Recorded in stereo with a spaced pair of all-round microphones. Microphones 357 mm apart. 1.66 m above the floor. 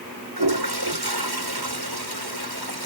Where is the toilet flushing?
80° right.